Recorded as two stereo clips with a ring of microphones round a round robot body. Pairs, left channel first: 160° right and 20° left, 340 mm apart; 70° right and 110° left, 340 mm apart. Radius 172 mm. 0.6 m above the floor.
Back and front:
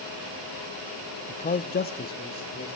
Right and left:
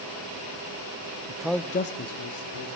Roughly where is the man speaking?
Behind left.